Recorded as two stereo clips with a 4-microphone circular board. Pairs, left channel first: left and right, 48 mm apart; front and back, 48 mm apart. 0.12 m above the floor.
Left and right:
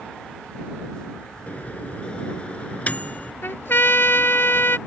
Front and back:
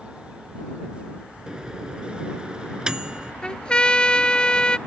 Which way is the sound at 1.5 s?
120° left.